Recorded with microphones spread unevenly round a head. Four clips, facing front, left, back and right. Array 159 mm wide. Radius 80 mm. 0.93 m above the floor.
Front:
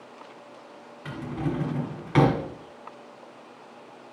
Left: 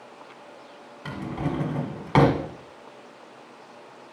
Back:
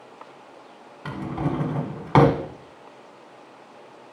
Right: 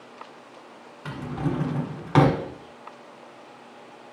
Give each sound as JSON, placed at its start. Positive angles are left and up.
{"t": 1.1, "sound": "a drawer", "azimuth_deg": 175, "distance_m": 1.4}